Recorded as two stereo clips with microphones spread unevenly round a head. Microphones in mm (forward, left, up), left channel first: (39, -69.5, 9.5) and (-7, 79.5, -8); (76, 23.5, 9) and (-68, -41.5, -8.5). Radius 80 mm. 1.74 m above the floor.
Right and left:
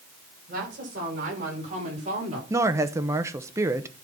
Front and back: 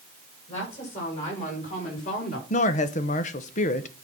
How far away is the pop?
I don't hear a pop.